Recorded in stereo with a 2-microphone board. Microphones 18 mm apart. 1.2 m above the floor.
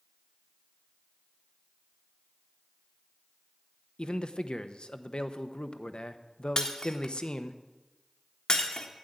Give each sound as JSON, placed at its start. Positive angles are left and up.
{"t": 4.0, "sound": "a man speaking", "side_deg": 55, "distance_m": 0.8}
{"t": 6.6, "sound": "breaking glass", "side_deg": 45, "distance_m": 1.3}